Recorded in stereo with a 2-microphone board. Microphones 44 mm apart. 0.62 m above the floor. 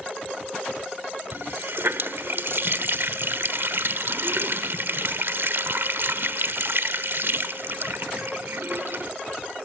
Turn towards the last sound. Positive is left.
turn(degrees=-65)  # may be behind; listen again after turning